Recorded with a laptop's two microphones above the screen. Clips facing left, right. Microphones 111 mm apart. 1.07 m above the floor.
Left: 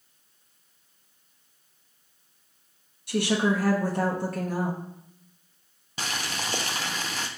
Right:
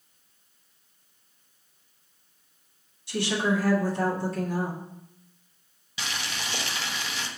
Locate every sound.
3.1 s a woman speaking: 55° left (ahead or behind), 1.1 m
6.0 s boiling: 40° left (ahead or behind), 0.5 m